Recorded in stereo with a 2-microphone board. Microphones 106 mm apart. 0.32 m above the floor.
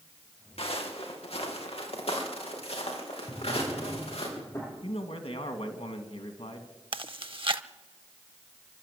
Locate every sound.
0.6 s footsteps: 65° left (ahead or behind), 4 m
3.3 s a drawer: 30° left (ahead or behind), 6.5 m
4.8 s a man speaking: 70° left (ahead or behind), 2.5 m
6.9 s chewing: 55° right (ahead or behind), 0.7 m